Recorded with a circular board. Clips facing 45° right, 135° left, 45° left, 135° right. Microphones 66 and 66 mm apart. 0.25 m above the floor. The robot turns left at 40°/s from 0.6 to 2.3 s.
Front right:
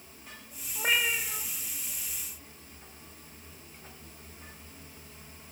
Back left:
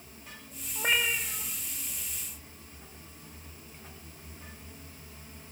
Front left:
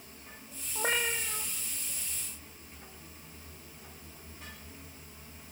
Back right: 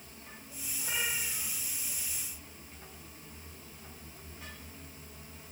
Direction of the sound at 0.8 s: 50° left.